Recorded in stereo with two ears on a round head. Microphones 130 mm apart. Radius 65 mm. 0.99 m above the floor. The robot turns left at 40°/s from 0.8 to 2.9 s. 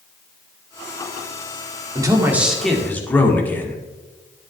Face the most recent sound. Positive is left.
turn(degrees=170)